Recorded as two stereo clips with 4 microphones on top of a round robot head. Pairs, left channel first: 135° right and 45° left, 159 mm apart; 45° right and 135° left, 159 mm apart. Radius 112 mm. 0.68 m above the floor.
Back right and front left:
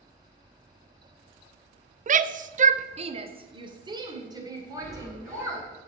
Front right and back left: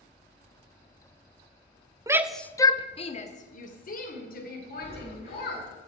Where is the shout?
70° left, 0.7 m; by 5.7 s 25° right, 3.5 m.